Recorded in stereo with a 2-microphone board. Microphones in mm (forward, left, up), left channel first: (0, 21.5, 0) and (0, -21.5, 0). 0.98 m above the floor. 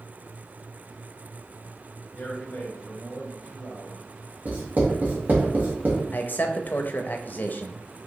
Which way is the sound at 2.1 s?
50° left (ahead or behind).